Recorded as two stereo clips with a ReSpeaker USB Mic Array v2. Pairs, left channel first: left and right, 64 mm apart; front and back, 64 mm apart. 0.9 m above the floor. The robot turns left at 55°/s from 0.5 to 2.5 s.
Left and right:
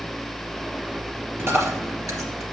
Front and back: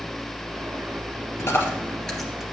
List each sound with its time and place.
1.4 s a dropped coin: 40° right, 2.5 m; by 2.4 s 100° right, 2.5 m